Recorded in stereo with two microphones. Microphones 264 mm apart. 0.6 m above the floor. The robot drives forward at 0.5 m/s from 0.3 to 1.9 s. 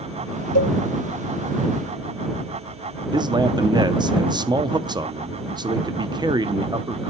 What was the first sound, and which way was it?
A cowbell, 70° left (ahead or behind).